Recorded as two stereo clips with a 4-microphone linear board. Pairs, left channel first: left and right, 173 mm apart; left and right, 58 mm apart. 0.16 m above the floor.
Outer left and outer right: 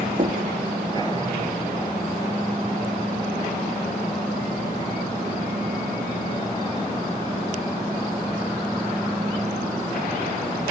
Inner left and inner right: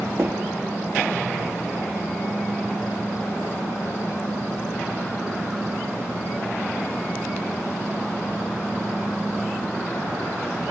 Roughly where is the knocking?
Right.